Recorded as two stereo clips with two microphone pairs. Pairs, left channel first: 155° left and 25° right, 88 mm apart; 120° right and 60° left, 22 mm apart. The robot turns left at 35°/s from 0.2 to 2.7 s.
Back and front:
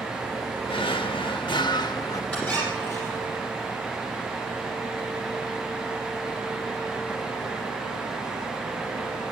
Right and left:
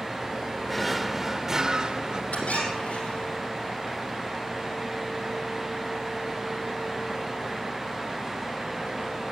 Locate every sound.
0.7 s a drawer: 160° left, 1.1 m; by 2.2 s 110° left, 1.1 m
2.3 s a squeak: 125° right, 5 m; by 3.4 s 140° right, 5 m